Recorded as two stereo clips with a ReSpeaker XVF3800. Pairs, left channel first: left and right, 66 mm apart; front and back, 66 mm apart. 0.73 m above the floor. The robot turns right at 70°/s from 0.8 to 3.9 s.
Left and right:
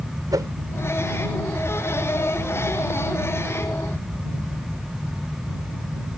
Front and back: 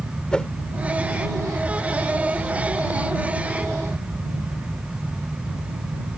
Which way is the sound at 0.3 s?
75° right.